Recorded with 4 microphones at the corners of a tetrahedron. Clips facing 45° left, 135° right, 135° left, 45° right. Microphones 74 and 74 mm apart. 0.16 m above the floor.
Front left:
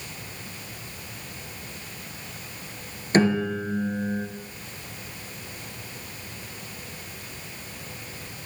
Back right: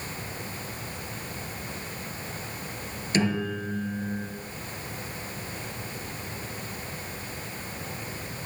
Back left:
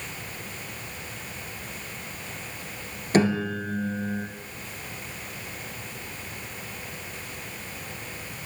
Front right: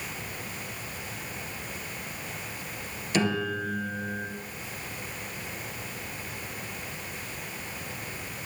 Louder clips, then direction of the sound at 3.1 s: Front left 5 dB, back left 4 dB; 90° left.